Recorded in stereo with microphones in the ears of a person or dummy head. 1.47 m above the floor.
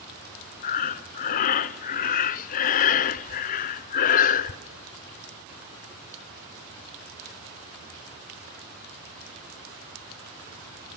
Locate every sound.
0.6 s breathing: 45° left (ahead or behind), 0.7 m